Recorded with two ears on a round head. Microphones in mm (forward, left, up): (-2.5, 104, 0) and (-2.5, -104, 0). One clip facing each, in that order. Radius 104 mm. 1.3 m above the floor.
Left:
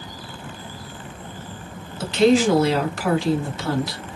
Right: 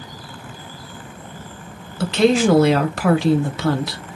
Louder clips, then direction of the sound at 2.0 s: Right 1 dB; 55° right (ahead or behind).